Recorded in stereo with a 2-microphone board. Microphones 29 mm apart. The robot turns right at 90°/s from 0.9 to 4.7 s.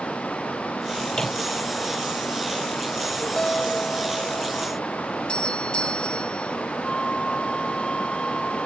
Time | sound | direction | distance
1.1 | a microwave | 20° left (ahead or behind) | ?
3.4 | a guitar | 65° left | ?
5.3 | a doorbell | 35° left (ahead or behind) | ?
6.8 | a flute | 25° left (ahead or behind) | ?